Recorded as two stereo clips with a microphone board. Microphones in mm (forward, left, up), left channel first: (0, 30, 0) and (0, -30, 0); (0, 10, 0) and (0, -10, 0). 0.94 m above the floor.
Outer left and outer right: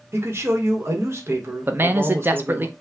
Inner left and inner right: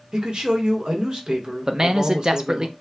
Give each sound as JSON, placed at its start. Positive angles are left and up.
{"t": 0.1, "sound": "a man speaking", "side_deg": -45, "distance_m": 1.2}
{"t": 1.7, "sound": "a man speaking", "side_deg": -35, "distance_m": 0.6}